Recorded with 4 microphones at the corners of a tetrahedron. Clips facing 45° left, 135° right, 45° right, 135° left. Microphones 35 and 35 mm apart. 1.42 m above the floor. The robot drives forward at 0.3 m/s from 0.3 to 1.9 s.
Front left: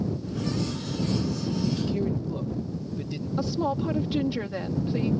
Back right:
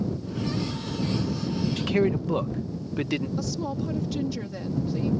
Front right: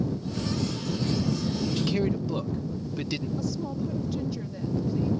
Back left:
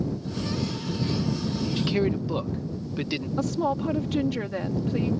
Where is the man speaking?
155° right.